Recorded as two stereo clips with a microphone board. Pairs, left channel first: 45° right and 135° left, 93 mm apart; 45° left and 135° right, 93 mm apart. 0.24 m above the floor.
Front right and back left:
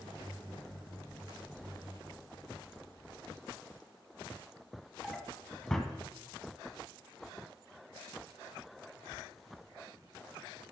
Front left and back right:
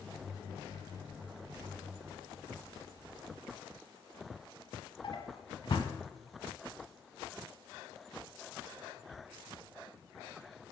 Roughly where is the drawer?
Ahead left.